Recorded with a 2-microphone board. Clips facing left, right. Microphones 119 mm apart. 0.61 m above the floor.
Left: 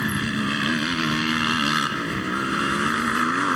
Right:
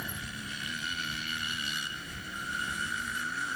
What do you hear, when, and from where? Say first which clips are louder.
0.0 s a motorcycle: left 17 dB; 90° left